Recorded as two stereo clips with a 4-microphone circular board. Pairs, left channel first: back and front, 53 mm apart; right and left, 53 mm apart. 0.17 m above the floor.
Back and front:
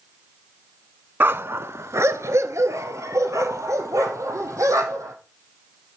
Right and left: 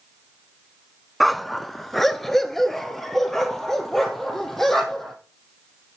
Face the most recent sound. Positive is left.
turn(degrees=-5)